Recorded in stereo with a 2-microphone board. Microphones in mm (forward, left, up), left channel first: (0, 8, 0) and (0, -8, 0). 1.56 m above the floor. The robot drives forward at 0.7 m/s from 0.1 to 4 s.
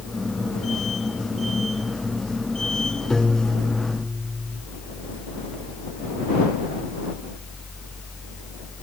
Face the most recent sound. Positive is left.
turn(degrees=20)  # may be behind; listen again after turning